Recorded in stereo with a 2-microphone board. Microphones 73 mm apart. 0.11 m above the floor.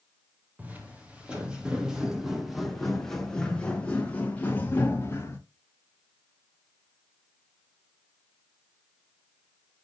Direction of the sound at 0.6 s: 25° right (ahead or behind).